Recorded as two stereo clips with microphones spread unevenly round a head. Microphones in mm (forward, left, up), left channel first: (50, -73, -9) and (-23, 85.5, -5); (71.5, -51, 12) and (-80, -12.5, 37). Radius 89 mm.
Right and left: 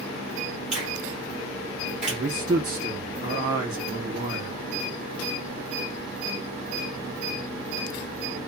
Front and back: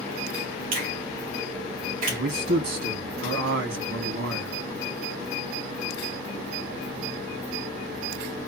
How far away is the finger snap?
About 1.4 m.